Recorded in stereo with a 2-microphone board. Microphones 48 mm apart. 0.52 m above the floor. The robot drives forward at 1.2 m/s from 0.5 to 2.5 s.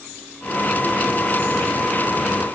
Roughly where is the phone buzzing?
No phone buzzing in this recording.